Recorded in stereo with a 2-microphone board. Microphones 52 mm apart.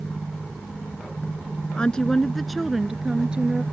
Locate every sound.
1.8 s a woman speaking: 20° left (ahead or behind); by 3.6 s 20° right (ahead or behind)